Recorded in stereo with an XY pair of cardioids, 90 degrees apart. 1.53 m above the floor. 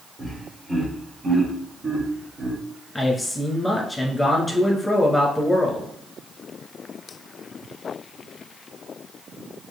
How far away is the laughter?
About 2.5 m.